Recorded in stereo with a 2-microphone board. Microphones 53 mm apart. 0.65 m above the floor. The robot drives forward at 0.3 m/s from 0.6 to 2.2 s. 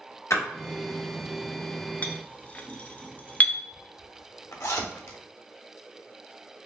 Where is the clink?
30° left (ahead or behind), 0.5 m.